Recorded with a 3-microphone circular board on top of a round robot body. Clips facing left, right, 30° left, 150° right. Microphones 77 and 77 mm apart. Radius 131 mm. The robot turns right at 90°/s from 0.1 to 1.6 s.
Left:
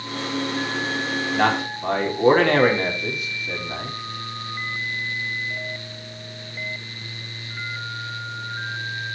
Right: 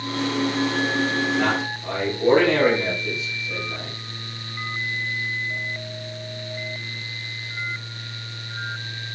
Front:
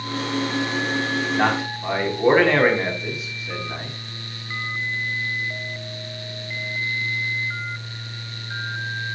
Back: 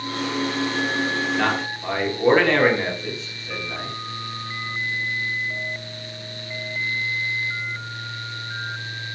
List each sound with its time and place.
1.3 s a man speaking: 90° left, 4.5 m; by 4.0 s 115° left, 4.5 m